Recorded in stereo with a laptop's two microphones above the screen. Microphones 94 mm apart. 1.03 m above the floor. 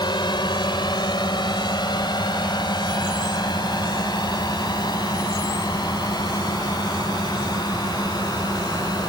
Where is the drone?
50° left (ahead or behind); by 9.1 s 45° left (ahead or behind).